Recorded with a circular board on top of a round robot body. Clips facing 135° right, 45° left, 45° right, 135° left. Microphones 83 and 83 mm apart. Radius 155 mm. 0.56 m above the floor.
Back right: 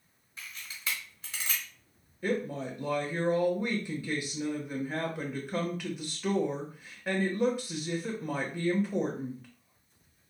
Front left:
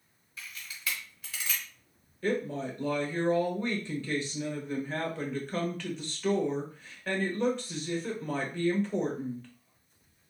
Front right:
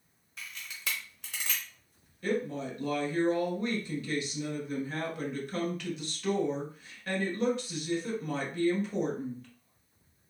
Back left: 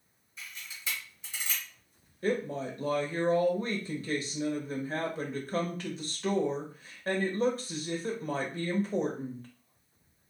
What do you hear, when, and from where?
0.4 s a camera shutter: 75° right, 0.8 m
2.2 s a woman speaking: 150° left, 1.3 m